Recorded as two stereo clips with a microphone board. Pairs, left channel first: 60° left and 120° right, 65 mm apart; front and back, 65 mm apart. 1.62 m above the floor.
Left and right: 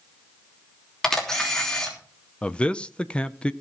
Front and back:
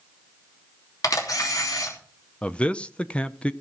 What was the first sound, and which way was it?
A camera shutter, 20° right.